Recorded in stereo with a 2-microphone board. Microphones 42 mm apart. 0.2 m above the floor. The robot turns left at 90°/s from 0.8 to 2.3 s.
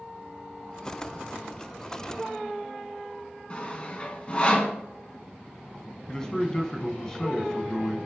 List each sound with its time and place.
3.5 s sawing: 30° left (ahead or behind), 1.6 m
6.1 s a man speaking: 15° left (ahead or behind), 1.5 m